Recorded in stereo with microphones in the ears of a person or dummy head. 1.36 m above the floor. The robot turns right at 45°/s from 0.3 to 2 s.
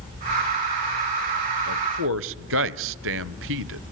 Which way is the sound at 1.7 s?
70° right (ahead or behind).